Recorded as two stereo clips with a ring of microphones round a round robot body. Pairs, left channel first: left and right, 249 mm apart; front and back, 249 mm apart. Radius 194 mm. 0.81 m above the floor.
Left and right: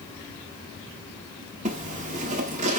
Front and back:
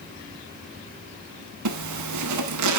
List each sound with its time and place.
1.6 s a zipper: 160° right, 0.8 m